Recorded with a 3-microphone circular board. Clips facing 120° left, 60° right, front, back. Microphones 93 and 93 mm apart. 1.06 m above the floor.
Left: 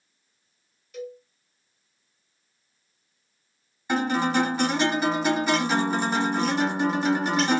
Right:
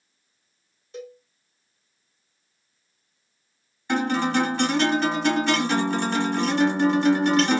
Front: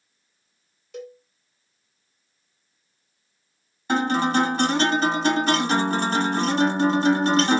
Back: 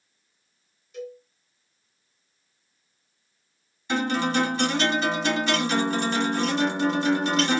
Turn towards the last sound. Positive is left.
turn(degrees=40)